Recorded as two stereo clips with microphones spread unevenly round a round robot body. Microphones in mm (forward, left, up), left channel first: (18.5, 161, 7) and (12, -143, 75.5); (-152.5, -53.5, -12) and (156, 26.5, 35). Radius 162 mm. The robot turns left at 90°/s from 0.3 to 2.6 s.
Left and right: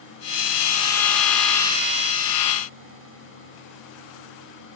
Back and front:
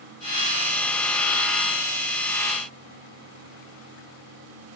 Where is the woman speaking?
I don't hear a woman speaking.